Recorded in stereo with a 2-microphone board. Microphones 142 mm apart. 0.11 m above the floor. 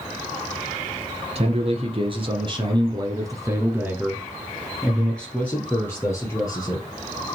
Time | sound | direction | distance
1.4 | a man speaking | 45° right (ahead or behind) | 1.9 m